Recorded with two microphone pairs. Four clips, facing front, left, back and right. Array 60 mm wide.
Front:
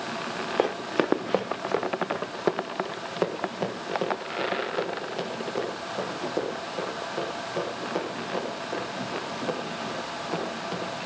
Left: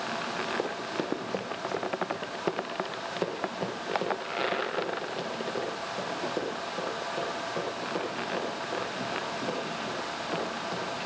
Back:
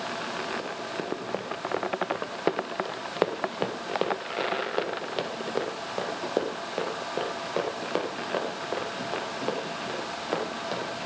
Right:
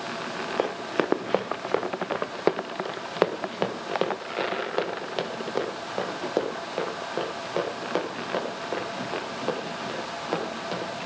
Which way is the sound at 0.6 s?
35° right.